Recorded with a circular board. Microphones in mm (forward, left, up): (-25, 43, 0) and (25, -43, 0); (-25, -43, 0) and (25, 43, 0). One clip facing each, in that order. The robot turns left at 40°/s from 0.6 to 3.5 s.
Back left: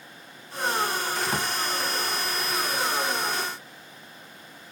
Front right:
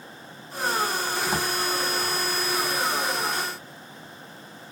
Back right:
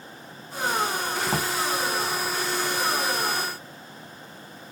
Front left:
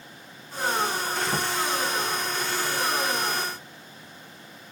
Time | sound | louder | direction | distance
1.3 | a drawer | front right 1 dB, back right 3 dB | 140° right | 0.8 m